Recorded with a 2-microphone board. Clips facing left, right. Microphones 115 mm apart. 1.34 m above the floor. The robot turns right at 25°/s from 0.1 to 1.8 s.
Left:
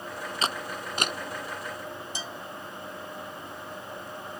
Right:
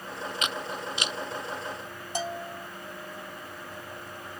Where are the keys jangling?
No keys jangling in this recording.